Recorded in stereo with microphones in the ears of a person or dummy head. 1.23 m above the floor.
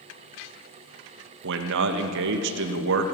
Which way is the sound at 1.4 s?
70° right (ahead or behind).